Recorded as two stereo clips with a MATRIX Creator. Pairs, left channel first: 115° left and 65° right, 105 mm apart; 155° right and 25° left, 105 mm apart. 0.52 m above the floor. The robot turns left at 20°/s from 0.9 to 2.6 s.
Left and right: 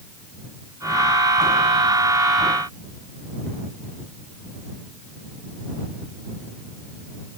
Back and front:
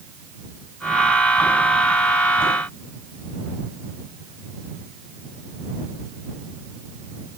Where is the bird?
I don't hear a bird.